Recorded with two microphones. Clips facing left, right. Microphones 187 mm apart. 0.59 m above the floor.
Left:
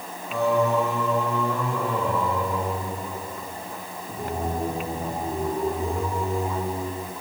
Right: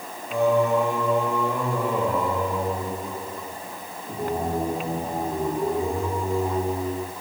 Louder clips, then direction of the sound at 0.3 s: Right 2 dB; 15° right (ahead or behind).